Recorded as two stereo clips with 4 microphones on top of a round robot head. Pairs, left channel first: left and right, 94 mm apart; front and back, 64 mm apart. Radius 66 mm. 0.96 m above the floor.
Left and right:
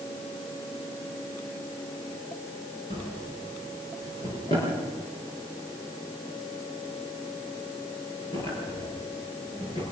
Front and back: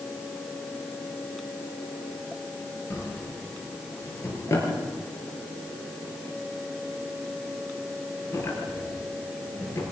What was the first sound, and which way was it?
A drawer, 40° left.